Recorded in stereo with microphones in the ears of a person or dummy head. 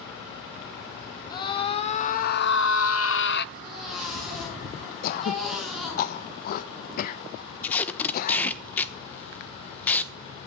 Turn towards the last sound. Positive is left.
turn(degrees=10)  # may be behind; listen again after turning